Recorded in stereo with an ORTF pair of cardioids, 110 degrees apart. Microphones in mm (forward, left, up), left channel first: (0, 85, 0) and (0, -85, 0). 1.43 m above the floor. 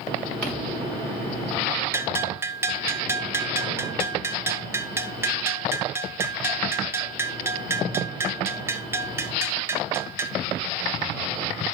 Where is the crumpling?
5° left, 5 m.